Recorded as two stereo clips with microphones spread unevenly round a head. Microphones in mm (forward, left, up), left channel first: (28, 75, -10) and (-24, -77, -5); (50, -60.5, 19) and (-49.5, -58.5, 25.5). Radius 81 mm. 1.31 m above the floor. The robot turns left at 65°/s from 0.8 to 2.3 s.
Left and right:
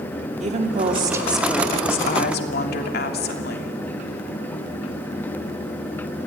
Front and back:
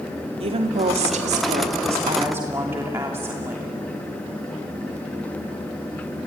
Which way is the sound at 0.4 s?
160° right.